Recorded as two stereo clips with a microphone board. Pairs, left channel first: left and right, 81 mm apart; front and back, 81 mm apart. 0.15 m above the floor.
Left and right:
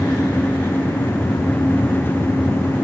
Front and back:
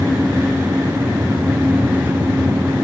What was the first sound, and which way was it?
Only background noise.